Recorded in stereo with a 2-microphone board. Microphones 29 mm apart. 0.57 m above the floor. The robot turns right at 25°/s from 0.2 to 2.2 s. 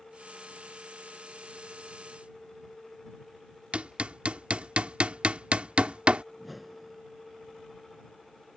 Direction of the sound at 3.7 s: 45° right (ahead or behind).